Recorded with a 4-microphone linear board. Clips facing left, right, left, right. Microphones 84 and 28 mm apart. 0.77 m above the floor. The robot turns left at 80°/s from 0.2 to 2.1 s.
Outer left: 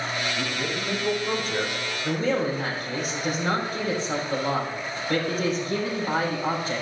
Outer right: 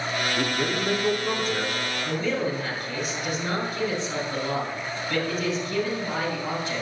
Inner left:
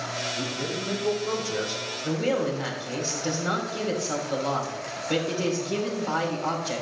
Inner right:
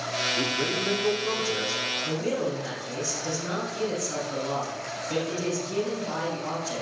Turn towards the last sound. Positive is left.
turn(degrees=50)  # may be behind; listen again after turning